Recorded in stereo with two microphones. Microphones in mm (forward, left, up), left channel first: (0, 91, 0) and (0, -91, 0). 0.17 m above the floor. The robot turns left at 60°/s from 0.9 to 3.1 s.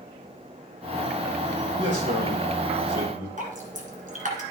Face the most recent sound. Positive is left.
turn(degrees=-45)  # may be behind; listen again after turning